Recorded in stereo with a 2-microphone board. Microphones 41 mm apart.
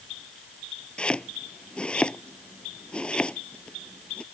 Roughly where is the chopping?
Left.